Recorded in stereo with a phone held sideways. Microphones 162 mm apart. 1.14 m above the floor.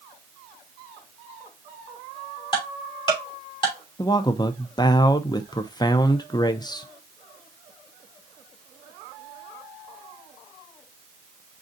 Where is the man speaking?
25° left (ahead or behind), 0.5 m.